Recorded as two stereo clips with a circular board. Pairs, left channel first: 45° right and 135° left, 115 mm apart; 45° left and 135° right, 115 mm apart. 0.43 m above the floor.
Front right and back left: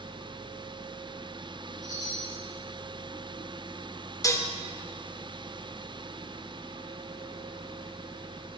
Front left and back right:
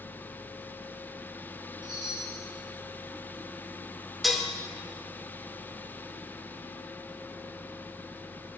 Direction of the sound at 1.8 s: 95° right.